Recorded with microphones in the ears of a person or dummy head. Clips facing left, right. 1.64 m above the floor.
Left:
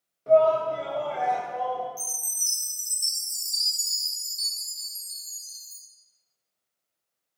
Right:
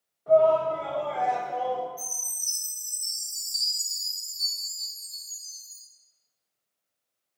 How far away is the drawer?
I don't hear a drawer.